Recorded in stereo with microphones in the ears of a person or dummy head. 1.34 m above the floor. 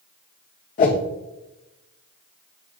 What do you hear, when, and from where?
0.8 s a whoosh: 40° left (ahead or behind), 1.1 m